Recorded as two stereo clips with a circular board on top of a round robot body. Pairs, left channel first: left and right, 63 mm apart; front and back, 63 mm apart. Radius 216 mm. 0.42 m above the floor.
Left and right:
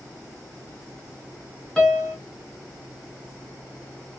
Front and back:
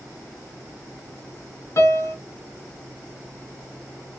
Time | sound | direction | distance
1.8 | a piano | 10° left | 1.5 m